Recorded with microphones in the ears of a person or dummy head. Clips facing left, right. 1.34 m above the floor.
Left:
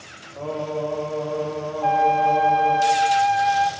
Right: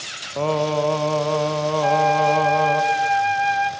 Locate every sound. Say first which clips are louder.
0.4 s singing: right 6 dB; 75° right (ahead or behind), 0.8 m
1.8 s a flute: even; 20° right (ahead or behind), 0.5 m